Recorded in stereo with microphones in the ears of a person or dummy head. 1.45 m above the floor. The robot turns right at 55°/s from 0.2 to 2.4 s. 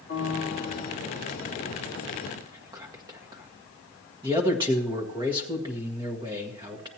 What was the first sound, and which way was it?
A piano, 115° left.